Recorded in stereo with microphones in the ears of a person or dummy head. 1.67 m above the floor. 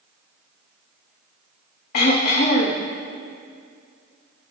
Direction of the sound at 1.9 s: 50° left (ahead or behind).